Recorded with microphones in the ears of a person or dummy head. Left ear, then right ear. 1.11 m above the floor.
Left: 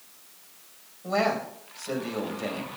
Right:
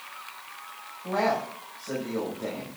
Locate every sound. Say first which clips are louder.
1.0 s a man speaking: even; 85° left, 6.5 m